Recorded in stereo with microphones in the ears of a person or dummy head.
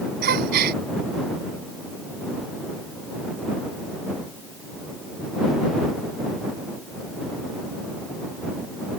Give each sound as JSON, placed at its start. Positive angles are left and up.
{"t": 0.2, "sound": "a gasp", "side_deg": -55}